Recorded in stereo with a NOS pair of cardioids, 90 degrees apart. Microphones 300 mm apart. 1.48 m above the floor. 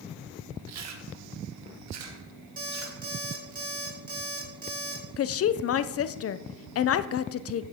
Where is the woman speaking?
50° left, 0.7 m.